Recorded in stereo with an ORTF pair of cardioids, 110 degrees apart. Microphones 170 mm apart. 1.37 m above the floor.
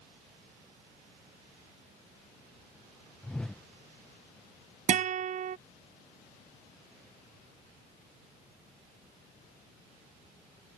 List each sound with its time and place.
3.2 s a whoosh: 5° left
4.9 s a guitar: 45° right